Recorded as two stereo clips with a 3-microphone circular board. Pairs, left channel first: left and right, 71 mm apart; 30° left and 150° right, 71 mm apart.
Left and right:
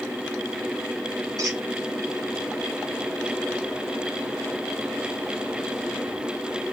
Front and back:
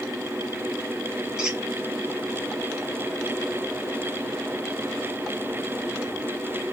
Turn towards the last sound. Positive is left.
turn(degrees=-75)